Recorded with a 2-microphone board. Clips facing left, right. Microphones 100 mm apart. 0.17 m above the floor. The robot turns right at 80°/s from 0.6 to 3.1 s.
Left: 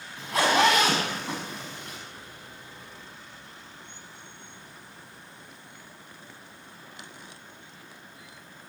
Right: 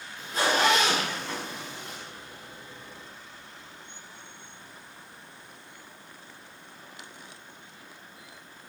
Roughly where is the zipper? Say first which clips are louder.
Left 3 dB; left.